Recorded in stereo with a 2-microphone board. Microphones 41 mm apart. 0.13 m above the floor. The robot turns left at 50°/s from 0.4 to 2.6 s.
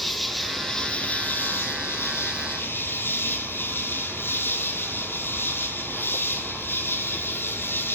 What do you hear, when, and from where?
0.0 s an insect: straight behind, 1.0 m; by 8.0 s 70° left, 1.0 m